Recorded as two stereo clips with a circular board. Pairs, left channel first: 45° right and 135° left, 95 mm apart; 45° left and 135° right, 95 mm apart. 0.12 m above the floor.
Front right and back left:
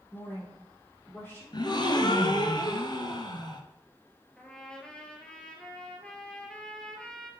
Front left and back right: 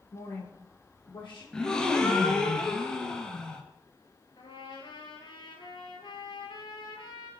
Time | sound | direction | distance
0.1 | a woman speaking | 20° left | 3.5 m
1.5 | a gasp | 35° right | 0.9 m
4.4 | a trumpet | 35° left | 1.4 m